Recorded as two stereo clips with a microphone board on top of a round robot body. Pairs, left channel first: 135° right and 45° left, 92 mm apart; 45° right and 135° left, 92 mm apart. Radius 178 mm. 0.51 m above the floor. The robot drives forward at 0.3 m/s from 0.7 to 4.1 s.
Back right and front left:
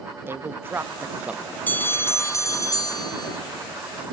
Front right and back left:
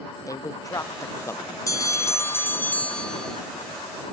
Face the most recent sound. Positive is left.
turn(degrees=-140)